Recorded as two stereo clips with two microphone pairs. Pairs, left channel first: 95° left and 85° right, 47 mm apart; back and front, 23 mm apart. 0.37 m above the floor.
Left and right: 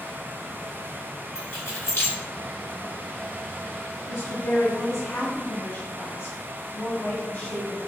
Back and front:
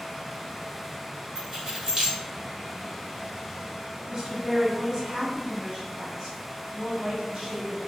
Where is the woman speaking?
80° left, 1.9 m.